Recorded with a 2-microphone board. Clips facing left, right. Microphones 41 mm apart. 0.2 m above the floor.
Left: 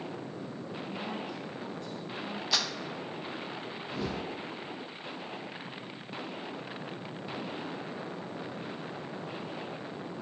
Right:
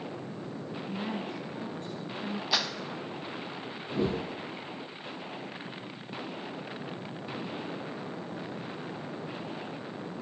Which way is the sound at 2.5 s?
10° right (ahead or behind).